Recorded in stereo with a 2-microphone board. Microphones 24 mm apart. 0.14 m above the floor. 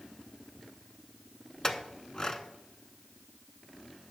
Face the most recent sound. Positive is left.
turn(degrees=25)  # may be behind; listen again after turning